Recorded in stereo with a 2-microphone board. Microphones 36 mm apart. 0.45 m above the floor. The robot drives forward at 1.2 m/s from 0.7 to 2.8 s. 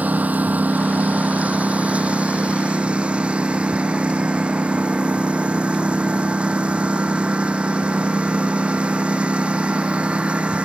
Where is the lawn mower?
50° right (ahead or behind); by 10.7 s 35° right (ahead or behind).